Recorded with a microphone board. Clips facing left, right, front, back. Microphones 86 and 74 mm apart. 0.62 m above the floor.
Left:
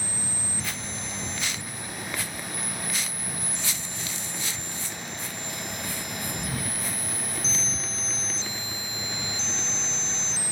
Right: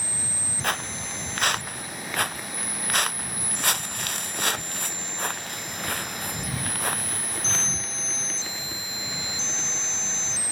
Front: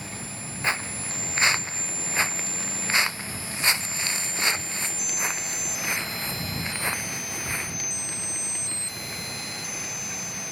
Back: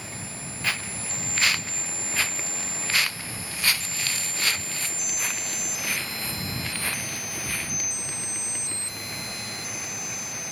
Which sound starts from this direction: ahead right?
Footsteps, at 0.6 s.